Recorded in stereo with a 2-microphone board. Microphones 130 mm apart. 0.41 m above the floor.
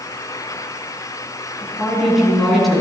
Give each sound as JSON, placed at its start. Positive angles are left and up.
{"t": 1.6, "sound": "a woman speaking", "side_deg": 0, "distance_m": 3.5}